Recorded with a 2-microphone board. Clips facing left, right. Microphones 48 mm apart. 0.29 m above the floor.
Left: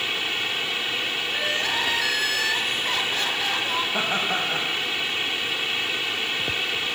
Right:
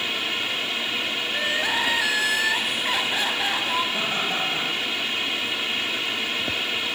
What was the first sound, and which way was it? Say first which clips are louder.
Crying: right 2 dB; 20° right (ahead or behind).